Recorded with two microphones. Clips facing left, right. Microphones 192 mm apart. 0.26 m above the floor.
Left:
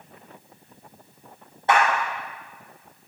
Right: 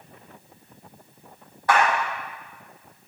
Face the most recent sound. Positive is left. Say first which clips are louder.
# even
turn(degrees=25)  # may be behind; listen again after turning